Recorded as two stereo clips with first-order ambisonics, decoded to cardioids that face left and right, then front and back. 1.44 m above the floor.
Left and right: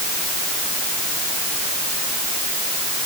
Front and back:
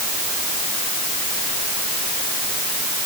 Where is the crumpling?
I don't hear crumpling.